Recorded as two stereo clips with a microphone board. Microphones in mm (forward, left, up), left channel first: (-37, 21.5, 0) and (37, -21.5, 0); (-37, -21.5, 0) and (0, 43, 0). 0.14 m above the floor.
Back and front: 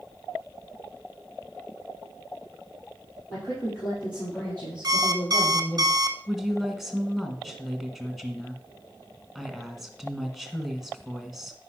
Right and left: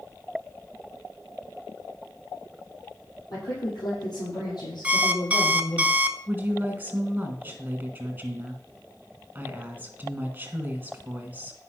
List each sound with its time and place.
3.3 s a woman speaking: 150° right, 5 m; by 5.8 s 125° right, 4.5 m
4.8 s an alarm clock: 5° right, 0.9 m
6.3 s a woman speaking: 55° left, 1.6 m